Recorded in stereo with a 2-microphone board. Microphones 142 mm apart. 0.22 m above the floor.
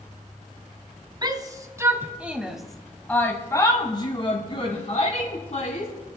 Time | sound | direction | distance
1.2 | a shout | 30° right (ahead or behind) | 1.5 m